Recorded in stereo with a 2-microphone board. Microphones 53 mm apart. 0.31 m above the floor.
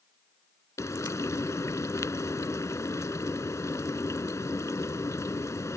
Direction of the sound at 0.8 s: 75° left (ahead or behind).